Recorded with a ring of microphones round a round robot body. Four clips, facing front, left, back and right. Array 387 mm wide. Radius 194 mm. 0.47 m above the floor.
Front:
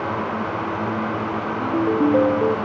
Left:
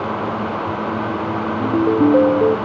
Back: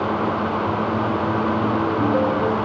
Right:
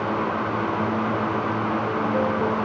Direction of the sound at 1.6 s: 80° left.